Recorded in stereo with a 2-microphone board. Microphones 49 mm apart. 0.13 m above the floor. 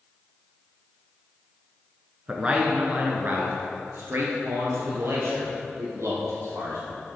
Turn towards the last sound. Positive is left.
turn(degrees=-70)  # may be behind; listen again after turning